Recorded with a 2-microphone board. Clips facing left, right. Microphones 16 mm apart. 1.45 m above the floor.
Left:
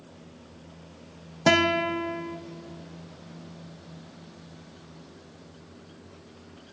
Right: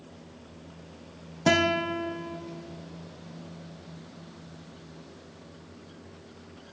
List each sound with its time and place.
1.5 s a guitar: 20° left (ahead or behind), 0.6 m